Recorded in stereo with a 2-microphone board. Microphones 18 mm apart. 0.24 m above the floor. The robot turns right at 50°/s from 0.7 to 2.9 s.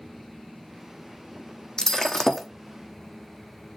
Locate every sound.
1.8 s breaking glass: 130° left, 0.8 m; by 2.5 s 165° left, 0.8 m